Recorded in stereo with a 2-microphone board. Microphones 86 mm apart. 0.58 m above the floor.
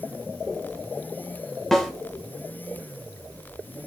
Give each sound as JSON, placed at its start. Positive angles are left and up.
{"t": 1.7, "sound": "a snare drum", "side_deg": 5, "distance_m": 2.0}